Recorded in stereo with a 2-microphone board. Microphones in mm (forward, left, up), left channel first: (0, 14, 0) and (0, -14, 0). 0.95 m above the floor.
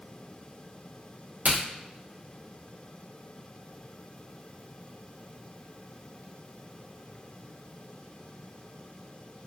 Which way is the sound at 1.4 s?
65° right (ahead or behind).